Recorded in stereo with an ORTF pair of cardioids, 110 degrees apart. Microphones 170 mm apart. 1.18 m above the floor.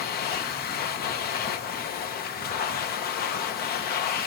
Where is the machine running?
70° left, 0.9 m.